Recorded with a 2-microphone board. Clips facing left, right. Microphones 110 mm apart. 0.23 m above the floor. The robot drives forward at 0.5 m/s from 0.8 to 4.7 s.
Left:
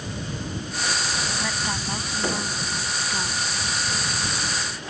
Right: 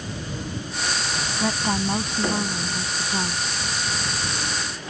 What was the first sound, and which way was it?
A woman speaking, 25° right (ahead or behind).